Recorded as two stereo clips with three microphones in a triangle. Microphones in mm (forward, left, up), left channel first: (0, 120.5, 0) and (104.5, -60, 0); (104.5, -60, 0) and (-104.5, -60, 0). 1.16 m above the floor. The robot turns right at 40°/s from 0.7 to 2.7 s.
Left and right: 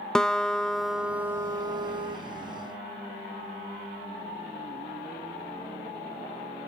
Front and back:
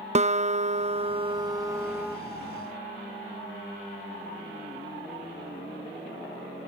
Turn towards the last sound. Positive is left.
turn(degrees=-75)